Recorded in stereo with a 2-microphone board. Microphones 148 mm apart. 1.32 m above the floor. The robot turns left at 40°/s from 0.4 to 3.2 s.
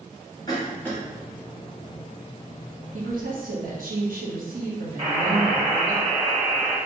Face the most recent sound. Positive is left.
turn(degrees=-40)  # may be behind; listen again after turning